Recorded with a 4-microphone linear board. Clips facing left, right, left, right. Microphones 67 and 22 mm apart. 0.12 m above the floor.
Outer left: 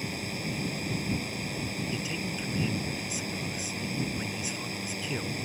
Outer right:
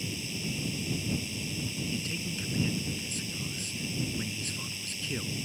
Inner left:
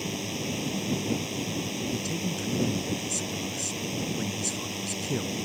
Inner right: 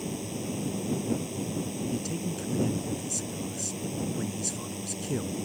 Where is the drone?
50° left (ahead or behind).